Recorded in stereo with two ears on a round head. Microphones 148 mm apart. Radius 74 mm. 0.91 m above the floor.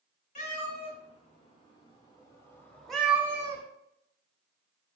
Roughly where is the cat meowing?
Left.